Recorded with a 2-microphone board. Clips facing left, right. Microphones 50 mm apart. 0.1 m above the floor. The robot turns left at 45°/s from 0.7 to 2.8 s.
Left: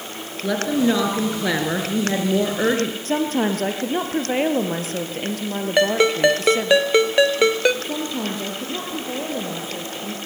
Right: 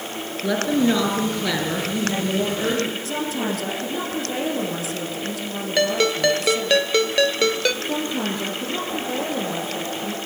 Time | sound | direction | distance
0.4 | a woman speaking | straight behind | 2.0 m
3.0 | a woman speaking | 50° left (ahead or behind) | 2.5 m
5.8 | a ringtone | 20° left (ahead or behind) | 0.8 m
7.8 | a woman speaking | 5° left (ahead or behind) | 2.5 m